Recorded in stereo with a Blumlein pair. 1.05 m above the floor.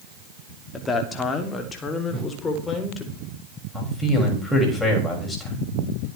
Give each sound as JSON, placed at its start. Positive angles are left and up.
{"t": 0.7, "sound": "a man speaking", "azimuth_deg": 15, "distance_m": 2.5}
{"t": 2.1, "sound": "a whoosh", "azimuth_deg": -10, "distance_m": 7.5}
{"t": 3.7, "sound": "a man speaking", "azimuth_deg": 10, "distance_m": 6.5}